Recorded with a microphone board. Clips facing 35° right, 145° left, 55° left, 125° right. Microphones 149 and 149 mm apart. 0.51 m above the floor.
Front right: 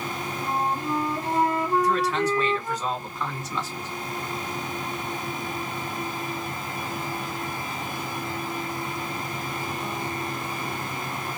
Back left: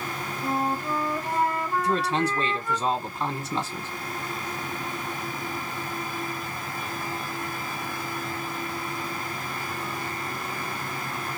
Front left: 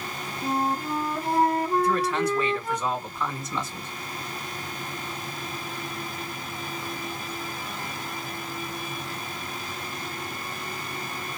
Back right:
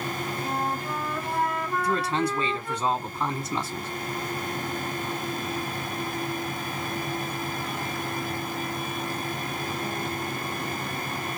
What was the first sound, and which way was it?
A flute, 15° left.